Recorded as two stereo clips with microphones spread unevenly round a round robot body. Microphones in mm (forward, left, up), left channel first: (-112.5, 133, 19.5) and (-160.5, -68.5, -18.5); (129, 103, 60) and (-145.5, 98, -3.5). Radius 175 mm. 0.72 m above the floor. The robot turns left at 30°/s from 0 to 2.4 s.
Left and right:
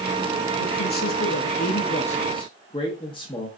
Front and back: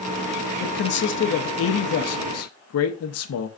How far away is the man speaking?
About 0.6 m.